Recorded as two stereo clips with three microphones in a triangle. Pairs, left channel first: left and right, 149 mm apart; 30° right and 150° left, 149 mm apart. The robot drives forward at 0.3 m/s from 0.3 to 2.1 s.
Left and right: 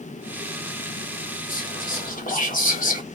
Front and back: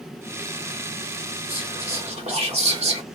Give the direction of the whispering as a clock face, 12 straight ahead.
9 o'clock.